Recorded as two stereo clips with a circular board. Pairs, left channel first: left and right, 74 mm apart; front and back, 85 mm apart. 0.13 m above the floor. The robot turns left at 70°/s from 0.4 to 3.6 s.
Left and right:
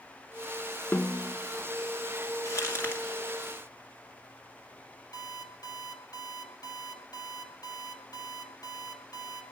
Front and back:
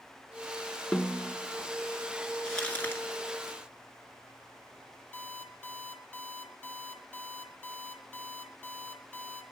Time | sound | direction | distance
0.9 | a snare drum | 80° left | 0.8 m
2.5 | crumpling | 80° left | 1.6 m
5.1 | an alarm clock | 75° left | 1.6 m